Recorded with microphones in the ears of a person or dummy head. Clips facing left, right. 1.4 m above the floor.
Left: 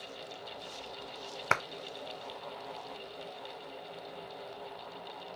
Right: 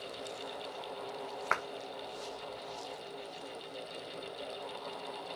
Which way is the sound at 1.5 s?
40° left (ahead or behind).